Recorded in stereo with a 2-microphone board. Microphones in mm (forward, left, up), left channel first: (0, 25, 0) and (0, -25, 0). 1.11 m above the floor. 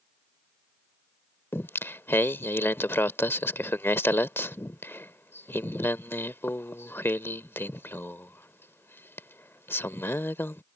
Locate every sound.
1.5 s singing: 50° left (ahead or behind)